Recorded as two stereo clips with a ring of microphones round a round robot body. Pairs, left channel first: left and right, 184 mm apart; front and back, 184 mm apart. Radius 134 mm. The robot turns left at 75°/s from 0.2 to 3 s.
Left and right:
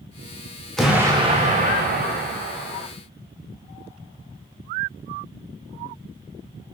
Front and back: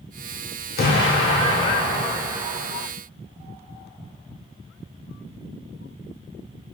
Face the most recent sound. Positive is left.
turn(degrees=-165)